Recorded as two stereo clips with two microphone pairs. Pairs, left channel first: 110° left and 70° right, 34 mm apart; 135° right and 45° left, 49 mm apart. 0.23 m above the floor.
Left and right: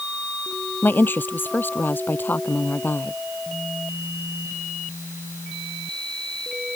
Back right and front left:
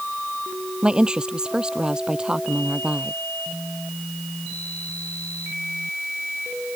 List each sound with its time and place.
0.8 s a woman speaking: 115° left